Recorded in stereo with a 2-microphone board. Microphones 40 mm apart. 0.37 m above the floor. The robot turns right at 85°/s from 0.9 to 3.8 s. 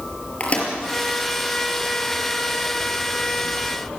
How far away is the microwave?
About 5 m.